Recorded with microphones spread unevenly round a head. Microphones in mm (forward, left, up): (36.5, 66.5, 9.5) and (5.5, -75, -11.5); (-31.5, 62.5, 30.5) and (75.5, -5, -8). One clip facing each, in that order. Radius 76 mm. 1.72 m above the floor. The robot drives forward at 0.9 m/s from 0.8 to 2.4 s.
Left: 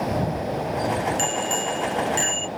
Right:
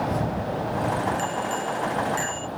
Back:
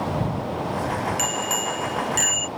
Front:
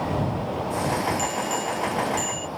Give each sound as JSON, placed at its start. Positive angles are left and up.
{"t": 1.2, "sound": "a bicycle bell", "azimuth_deg": 140}